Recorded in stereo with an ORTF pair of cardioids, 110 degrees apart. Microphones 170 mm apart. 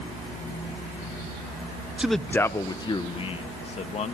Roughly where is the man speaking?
Ahead.